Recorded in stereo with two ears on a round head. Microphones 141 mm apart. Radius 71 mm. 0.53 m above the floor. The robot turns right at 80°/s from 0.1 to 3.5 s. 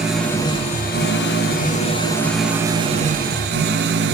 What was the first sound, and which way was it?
An engine running, 5° right.